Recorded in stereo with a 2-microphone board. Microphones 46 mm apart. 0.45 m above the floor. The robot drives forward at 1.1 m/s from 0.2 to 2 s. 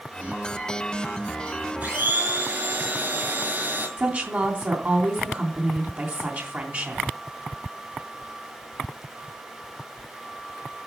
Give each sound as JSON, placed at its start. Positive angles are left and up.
{"t": 1.8, "sound": "a blender", "side_deg": -35, "distance_m": 5.5}
{"t": 4.0, "sound": "a woman speaking", "side_deg": -40, "distance_m": 3.0}